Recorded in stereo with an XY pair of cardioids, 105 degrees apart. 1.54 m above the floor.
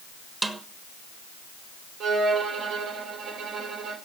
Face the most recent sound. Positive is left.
turn(degrees=-65)